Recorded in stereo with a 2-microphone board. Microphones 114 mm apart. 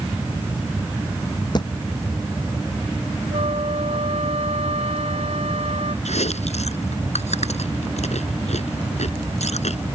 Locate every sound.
1.6 s a thud: 40° left (ahead or behind)
3.3 s a flute: 65° right (ahead or behind)
6.0 s chewing: 80° left